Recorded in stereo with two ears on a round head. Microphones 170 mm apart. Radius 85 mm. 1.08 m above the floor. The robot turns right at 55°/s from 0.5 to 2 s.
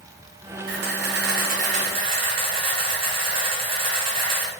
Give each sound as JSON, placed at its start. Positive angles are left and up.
{"t": 0.7, "sound": "a camera shutter", "azimuth_deg": -105, "distance_m": 1.0}